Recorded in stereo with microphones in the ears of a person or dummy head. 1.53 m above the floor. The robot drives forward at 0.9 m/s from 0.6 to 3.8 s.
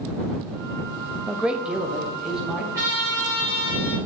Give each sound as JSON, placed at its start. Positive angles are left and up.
{"t": 1.3, "sound": "a man speaking", "side_deg": -5, "distance_m": 0.6}
{"t": 2.7, "sound": "a trumpet", "side_deg": -15, "distance_m": 2.5}